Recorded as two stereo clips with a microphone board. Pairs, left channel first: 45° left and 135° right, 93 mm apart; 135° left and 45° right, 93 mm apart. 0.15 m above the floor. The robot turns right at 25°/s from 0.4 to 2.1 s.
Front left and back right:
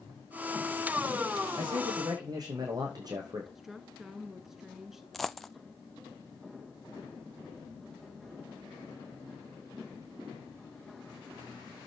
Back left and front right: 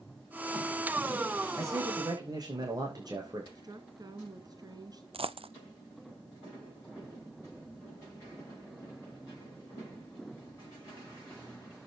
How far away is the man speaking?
About 8.5 m.